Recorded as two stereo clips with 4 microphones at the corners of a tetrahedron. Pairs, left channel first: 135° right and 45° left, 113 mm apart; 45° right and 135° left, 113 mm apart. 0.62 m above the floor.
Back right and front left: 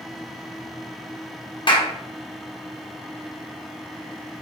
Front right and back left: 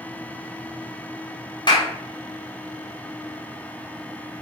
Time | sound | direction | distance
1.7 | a clap | 90° right | 2 m